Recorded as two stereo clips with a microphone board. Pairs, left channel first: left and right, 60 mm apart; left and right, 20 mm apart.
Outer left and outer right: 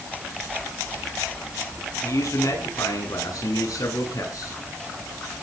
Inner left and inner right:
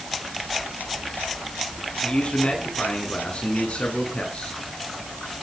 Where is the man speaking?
65° left (ahead or behind), 9.5 m; by 4.6 s 75° left (ahead or behind), 11 m.